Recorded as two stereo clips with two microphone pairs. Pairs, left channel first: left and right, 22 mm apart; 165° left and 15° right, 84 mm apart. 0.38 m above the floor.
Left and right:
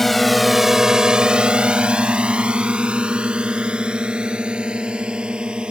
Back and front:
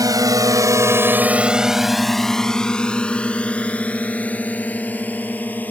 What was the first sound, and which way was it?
A drone, 15° left.